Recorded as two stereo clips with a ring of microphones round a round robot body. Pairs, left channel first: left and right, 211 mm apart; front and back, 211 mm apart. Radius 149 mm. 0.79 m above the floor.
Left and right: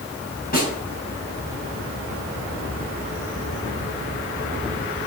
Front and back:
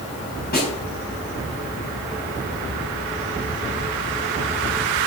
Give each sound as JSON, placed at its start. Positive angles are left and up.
{"t": 0.5, "sound": "a snare drum", "azimuth_deg": 45, "distance_m": 4.5}